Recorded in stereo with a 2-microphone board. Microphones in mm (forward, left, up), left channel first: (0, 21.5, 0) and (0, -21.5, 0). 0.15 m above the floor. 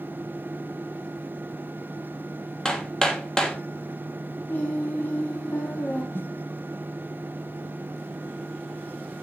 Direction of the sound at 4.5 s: 50° left (ahead or behind).